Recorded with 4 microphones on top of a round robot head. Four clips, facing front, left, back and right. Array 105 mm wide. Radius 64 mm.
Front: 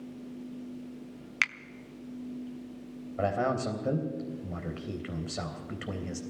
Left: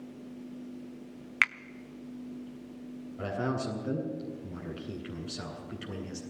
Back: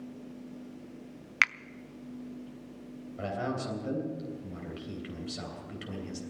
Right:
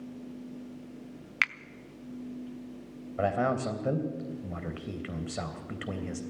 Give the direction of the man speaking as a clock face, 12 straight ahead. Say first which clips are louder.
Right 5 dB, front 5 dB; 2 o'clock.